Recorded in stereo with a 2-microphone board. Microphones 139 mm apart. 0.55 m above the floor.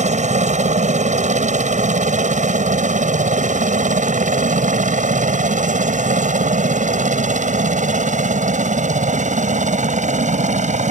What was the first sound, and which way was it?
A helicopter, 55° right (ahead or behind).